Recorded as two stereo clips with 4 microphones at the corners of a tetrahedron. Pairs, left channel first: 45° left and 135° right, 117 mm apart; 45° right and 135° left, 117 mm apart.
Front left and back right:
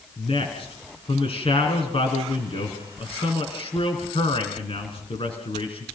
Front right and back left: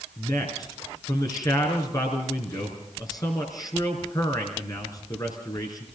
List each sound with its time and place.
0.2 s a man speaking: 10° left, 4.5 m